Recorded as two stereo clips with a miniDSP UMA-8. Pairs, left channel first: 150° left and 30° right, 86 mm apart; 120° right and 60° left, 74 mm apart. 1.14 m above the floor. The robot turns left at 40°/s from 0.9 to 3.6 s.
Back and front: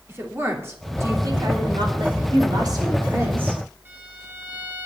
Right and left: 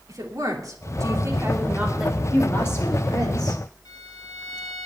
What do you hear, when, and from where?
0.1 s a woman speaking: 30° left, 3 m; by 2.2 s 25° right, 3 m
2.3 s a woman speaking: 50° right, 4.5 m; by 3.6 s 105° right, 4.5 m
3.9 s a violin: 95° right, 2.5 m